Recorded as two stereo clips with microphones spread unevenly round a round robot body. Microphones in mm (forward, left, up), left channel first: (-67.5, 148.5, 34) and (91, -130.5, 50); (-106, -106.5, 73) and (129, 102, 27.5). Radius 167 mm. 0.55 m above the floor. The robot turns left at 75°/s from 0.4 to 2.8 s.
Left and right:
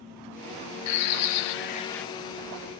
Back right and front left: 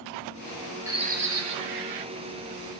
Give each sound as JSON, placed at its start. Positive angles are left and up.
{"t": 0.9, "sound": "a bird", "azimuth_deg": 120, "distance_m": 0.7}